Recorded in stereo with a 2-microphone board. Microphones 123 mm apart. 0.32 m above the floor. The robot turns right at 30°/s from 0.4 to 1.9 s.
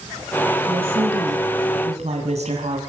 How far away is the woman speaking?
About 2.5 m.